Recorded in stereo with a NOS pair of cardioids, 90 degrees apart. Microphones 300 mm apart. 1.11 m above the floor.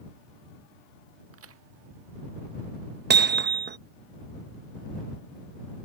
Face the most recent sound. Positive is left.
turn(degrees=-35)